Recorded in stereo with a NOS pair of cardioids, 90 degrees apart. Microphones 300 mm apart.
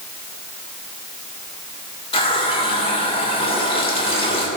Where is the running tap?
15° left, 3 m.